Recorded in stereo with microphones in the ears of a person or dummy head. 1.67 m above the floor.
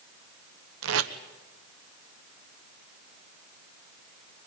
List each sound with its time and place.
0.8 s tape being pulled: 80° right, 1.1 m